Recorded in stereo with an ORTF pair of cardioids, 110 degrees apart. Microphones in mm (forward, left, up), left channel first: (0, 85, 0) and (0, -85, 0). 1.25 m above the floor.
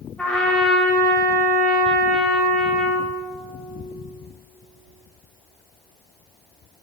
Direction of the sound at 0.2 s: 5° left.